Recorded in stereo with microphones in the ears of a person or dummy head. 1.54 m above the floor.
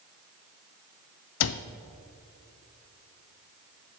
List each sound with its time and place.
1.4 s a cupboard door: 75° left (ahead or behind), 0.5 m